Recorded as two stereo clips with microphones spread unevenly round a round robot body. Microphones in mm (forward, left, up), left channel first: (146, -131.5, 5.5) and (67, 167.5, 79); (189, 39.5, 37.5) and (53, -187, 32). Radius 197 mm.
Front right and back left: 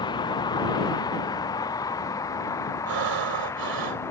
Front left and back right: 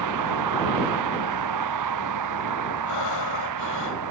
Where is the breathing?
90° left.